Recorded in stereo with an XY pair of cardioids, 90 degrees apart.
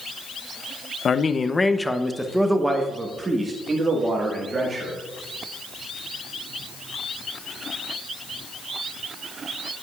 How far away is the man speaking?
About 0.6 m.